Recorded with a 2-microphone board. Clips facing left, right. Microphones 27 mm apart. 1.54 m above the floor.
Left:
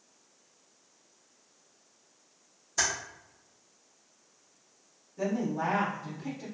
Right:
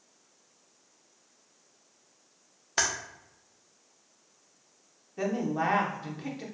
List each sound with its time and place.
2.8 s typing on a keyboard: 75° right (ahead or behind), 1.1 m
5.2 s a woman speaking: 75° right (ahead or behind), 1.2 m